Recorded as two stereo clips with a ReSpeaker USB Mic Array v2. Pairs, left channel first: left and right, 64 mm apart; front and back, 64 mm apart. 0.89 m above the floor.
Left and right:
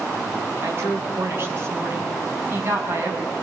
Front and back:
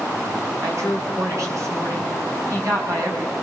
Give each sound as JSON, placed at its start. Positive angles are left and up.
{"t": 0.6, "sound": "a woman speaking", "azimuth_deg": -145, "distance_m": 6.0}